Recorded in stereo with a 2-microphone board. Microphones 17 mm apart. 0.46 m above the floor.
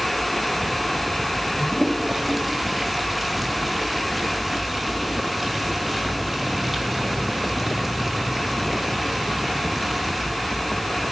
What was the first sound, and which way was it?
A toilet flushing, 10° right (ahead or behind).